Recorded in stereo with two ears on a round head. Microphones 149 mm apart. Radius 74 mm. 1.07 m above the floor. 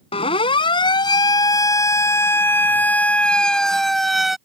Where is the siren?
35° left (ahead or behind); by 4.4 s centre (ahead or behind).